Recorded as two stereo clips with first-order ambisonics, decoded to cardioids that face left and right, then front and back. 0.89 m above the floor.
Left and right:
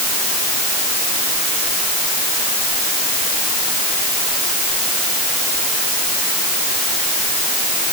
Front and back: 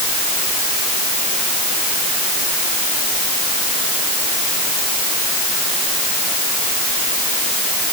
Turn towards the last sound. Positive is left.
No sound to turn to.